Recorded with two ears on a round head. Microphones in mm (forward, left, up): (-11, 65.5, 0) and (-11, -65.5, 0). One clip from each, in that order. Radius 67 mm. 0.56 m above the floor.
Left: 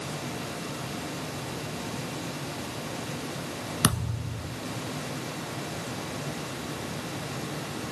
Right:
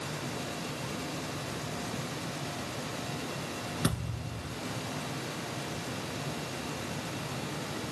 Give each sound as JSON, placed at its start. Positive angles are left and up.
{"t": 3.8, "sound": "a thud", "side_deg": 70, "distance_m": 1.1}